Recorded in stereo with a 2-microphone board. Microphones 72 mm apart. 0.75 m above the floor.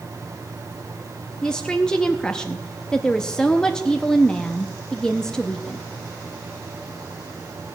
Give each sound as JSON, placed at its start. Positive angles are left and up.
{"t": 1.4, "sound": "a woman speaking", "side_deg": 10, "distance_m": 0.7}